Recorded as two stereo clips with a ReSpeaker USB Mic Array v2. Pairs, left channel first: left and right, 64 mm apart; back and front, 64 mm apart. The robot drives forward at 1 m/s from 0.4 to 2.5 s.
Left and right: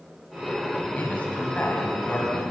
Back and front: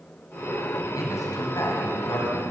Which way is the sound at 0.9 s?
155° left.